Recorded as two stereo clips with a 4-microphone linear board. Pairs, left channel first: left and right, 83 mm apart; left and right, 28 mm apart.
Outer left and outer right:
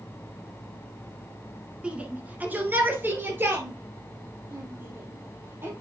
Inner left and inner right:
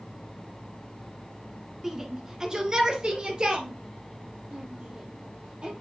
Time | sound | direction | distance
1.8 | a shout | 15° right (ahead or behind) | 1.3 m